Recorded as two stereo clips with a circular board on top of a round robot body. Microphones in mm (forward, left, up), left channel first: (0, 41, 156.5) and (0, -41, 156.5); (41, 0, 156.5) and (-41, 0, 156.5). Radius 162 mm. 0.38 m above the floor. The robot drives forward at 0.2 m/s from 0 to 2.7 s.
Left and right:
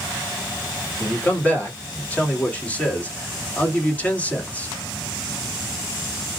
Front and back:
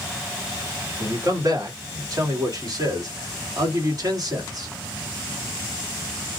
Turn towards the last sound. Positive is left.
turn(degrees=160)